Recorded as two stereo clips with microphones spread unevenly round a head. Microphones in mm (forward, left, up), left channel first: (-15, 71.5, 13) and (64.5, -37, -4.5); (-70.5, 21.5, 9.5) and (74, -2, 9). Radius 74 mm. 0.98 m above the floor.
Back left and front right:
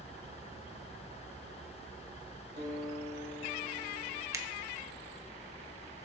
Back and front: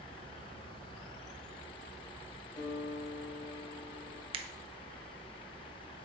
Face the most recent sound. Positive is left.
turn(degrees=-20)